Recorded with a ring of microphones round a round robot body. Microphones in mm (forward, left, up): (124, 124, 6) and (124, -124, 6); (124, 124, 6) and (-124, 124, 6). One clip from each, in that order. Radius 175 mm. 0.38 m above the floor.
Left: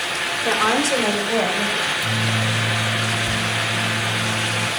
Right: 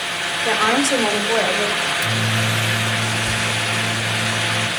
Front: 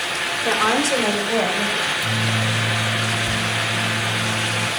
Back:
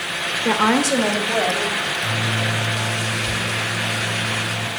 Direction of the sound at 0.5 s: 175° left.